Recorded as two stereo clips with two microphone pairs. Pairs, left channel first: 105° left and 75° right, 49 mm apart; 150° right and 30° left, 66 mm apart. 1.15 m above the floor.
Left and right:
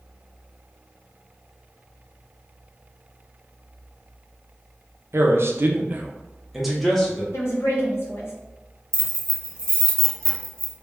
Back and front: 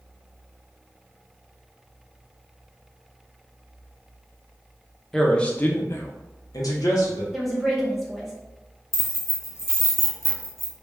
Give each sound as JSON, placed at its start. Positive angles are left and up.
{"t": 5.1, "sound": "a man speaking", "azimuth_deg": -65, "distance_m": 0.6}
{"t": 7.3, "sound": "a woman speaking", "azimuth_deg": 120, "distance_m": 0.8}
{"t": 8.9, "sound": "keys jangling", "azimuth_deg": 170, "distance_m": 0.6}